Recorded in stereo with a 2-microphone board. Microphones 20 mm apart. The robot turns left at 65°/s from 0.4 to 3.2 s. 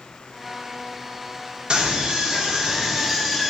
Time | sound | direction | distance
1.7 | a scream | 65° right | 0.8 m